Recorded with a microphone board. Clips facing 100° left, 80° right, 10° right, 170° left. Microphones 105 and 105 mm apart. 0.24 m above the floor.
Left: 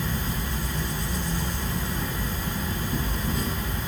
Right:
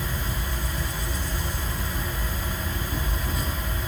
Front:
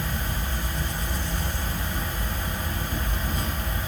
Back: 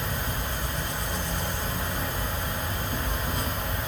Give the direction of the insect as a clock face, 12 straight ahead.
5 o'clock.